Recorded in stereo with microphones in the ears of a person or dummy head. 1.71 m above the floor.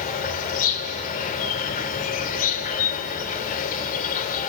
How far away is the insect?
About 3 m.